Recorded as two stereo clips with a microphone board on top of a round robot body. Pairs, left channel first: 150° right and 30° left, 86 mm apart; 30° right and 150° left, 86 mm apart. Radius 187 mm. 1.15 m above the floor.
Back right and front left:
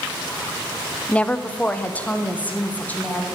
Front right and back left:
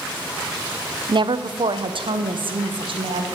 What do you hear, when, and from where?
1.1 s a woman speaking: 135° left, 0.8 m; by 3.2 s 140° left, 2.5 m